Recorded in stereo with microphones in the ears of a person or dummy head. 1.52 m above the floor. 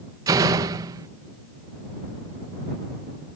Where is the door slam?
20° right (ahead or behind).